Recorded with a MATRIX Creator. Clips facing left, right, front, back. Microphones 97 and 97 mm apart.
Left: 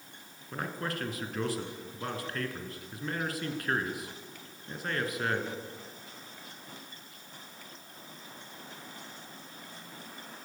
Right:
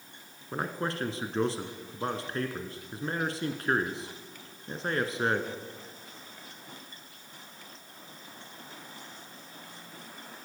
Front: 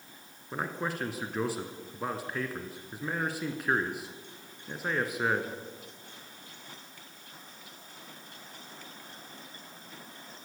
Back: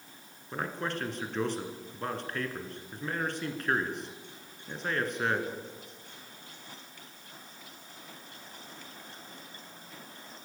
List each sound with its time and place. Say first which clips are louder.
0.5 s a man speaking: right 3 dB, even; 75° right, 1.6 m